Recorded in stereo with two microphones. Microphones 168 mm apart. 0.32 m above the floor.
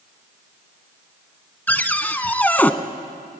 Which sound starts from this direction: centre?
A cupboard door, at 1.7 s.